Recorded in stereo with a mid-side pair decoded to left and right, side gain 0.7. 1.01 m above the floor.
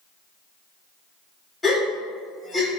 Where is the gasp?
20° left, 1.5 m.